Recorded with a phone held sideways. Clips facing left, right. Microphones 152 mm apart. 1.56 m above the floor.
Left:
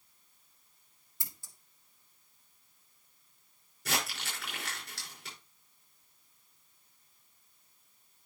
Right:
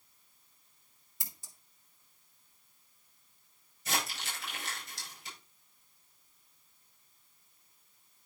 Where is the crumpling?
70° left (ahead or behind), 5.5 m.